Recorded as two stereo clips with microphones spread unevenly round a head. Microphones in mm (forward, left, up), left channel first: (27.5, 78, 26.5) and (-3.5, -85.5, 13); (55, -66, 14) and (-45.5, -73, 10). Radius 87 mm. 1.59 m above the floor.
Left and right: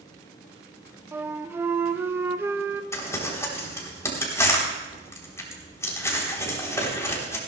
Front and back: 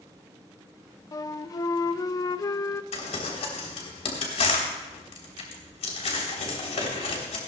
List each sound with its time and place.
1.1 s a flute: 25° right, 0.5 m
2.9 s crumpling: 5° left, 3.5 m